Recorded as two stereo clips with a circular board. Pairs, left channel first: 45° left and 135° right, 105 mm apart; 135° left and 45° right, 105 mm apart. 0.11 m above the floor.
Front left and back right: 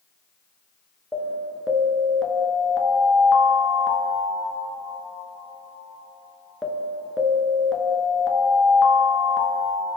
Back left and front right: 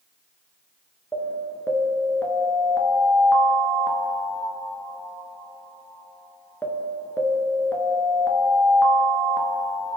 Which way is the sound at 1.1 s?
125° left.